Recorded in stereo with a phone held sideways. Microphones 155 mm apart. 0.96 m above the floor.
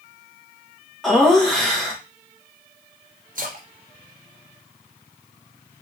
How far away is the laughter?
About 1.0 m.